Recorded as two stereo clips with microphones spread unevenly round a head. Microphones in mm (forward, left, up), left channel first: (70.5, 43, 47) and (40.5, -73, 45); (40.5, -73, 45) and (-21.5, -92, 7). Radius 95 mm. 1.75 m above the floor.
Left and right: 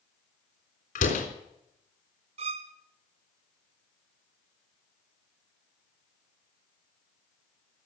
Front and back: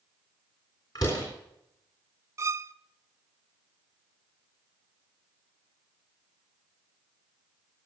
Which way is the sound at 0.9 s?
70° left.